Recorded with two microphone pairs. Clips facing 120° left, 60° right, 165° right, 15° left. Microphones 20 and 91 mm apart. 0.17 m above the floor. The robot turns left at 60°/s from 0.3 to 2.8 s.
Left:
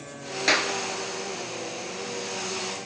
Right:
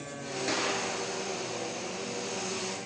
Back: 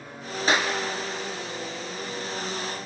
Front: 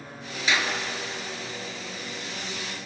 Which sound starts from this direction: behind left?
A clap, at 0.5 s.